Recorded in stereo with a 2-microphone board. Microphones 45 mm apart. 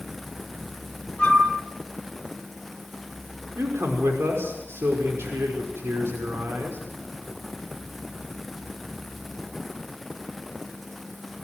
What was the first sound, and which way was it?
A flute, 20° left (ahead or behind).